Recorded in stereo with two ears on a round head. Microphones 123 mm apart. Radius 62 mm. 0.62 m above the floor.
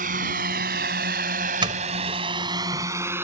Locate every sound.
0.0 s a drone: 65° right (ahead or behind); by 3.2 s 15° right (ahead or behind)
1.6 s a doorbell: 35° right (ahead or behind)